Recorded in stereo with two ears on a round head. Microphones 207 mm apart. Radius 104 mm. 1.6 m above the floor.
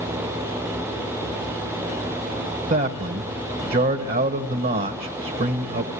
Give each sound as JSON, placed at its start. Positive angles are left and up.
{"t": 2.7, "sound": "a man speaking", "side_deg": -40, "distance_m": 1.2}